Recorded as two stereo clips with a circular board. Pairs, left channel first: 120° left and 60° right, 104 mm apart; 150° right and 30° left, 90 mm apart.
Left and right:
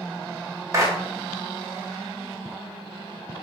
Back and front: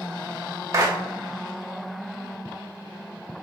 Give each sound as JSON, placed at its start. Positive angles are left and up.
{"t": 0.7, "sound": "a clap", "azimuth_deg": -10, "distance_m": 1.3}